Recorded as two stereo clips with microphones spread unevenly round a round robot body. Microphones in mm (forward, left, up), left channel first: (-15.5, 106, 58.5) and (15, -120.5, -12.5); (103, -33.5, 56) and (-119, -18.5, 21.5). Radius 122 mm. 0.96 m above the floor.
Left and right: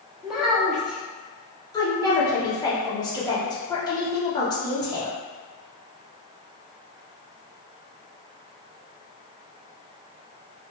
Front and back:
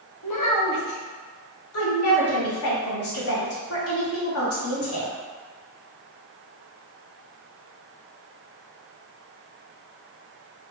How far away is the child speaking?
About 1.0 m.